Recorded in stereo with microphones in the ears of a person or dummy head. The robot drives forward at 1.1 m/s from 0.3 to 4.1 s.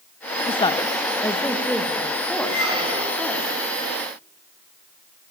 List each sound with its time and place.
0.5 s a woman speaking: 35° left (ahead or behind), 0.8 m; by 3.5 s 5° left (ahead or behind), 4 m
2.5 s a squeak: 25° right (ahead or behind), 5.5 m; by 3.3 s 20° right (ahead or behind), 6 m